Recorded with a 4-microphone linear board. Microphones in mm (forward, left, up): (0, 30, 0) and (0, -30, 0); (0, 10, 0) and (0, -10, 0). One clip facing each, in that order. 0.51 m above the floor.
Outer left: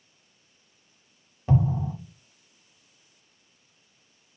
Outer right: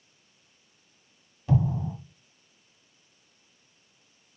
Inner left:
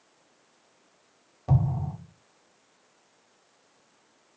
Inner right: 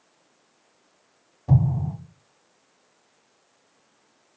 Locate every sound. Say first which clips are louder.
1.5 s an explosion: outer left 2 dB, inner right 4 dB; 30° left (ahead or behind), 1.5 m